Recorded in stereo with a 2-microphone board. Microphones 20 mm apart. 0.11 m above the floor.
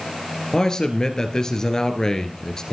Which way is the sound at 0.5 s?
30° left (ahead or behind).